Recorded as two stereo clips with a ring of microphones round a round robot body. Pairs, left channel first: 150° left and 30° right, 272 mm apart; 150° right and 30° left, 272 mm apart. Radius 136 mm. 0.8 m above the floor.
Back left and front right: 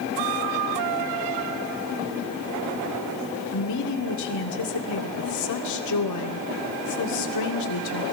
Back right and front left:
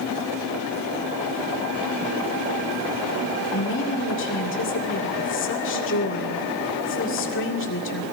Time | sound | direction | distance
3.5 | a woman speaking | 165° left | 2.5 m